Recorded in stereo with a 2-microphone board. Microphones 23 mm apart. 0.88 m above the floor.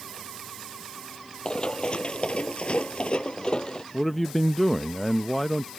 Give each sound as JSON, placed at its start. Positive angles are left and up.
{"t": 1.4, "sound": "running footsteps", "side_deg": 35}
{"t": 3.9, "sound": "a man speaking", "side_deg": 5}